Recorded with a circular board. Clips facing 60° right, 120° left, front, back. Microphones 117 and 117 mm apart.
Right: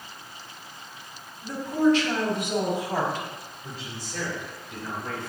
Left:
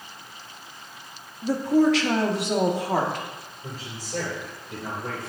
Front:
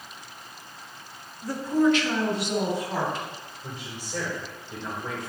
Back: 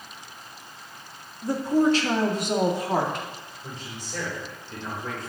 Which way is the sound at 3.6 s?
80° left.